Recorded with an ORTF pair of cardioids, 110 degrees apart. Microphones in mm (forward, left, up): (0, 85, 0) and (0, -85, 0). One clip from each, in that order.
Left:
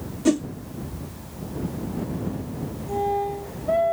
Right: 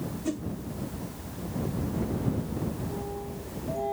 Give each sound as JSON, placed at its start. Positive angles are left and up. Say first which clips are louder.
{"t": 0.2, "sound": "a whoosh", "louder": "left 13 dB", "azimuth_deg": 55}